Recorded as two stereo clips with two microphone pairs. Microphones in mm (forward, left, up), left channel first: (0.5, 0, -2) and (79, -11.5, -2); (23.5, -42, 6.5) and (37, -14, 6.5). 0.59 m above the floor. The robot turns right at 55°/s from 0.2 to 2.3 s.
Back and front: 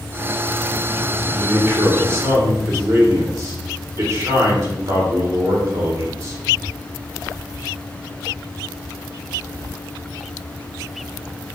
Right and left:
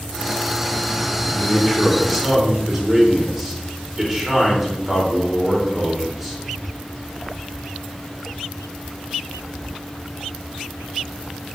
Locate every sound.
1.4 s a man speaking: 65° right, 1.7 m; by 6.4 s 15° right, 1.7 m